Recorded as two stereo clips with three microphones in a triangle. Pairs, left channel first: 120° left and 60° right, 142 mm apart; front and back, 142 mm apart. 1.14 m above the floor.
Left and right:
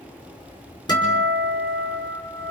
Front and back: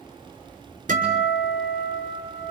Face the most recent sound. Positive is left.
turn(degrees=180)